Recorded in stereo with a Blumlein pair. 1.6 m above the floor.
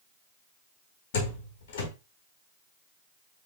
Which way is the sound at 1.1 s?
55° left.